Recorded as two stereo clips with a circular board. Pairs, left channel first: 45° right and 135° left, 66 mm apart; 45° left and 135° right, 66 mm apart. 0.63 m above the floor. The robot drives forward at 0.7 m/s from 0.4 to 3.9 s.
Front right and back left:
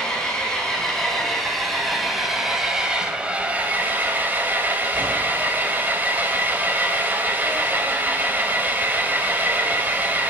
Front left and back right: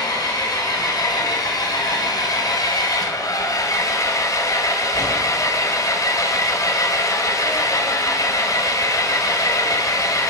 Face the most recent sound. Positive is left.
turn(degrees=70)